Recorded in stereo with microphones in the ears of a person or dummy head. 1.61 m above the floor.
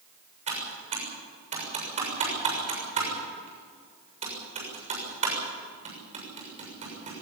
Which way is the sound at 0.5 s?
40° right (ahead or behind).